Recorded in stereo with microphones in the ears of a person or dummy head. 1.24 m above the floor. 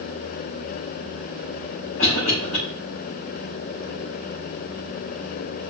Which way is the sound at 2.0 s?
85° left.